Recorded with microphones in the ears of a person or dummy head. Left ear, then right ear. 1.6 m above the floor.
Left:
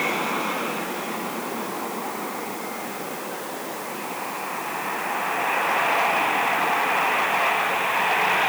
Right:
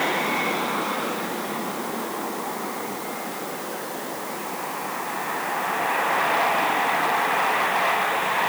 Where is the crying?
I don't hear crying.